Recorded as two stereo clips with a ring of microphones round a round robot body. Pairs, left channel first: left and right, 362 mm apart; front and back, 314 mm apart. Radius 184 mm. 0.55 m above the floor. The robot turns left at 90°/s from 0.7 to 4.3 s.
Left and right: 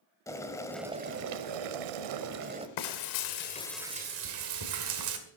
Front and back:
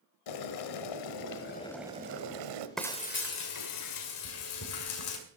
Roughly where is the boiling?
Ahead.